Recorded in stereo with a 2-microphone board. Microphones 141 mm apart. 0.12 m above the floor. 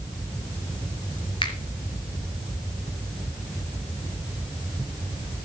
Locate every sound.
1.4 s a finger snap: 35° left (ahead or behind), 2.5 m